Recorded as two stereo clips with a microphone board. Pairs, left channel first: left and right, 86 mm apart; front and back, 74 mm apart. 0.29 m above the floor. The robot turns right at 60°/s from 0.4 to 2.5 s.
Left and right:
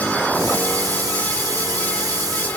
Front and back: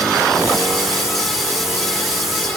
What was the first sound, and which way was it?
Only background noise.